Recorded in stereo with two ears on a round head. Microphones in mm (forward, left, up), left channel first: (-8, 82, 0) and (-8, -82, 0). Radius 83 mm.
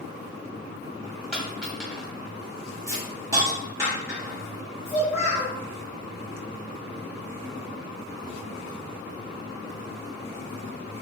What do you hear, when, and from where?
1.3 s a dropped coin: centre (ahead or behind), 1.5 m
2.9 s a hiss: 20° right (ahead or behind), 1.1 m
4.8 s a child speaking: 5° left (ahead or behind), 1.5 m